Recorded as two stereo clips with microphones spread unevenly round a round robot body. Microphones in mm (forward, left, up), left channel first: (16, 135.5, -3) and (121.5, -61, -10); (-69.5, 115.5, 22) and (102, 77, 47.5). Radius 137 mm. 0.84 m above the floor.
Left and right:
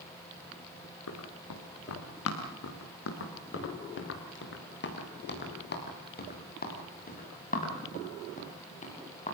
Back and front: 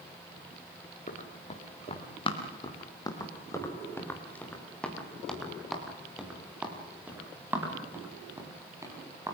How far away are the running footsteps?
About 5.5 m.